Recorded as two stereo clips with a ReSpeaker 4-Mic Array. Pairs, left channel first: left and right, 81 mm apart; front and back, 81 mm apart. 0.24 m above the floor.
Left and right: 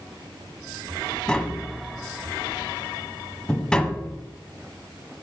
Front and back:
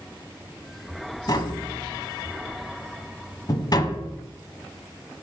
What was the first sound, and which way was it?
Tapping, 15° left.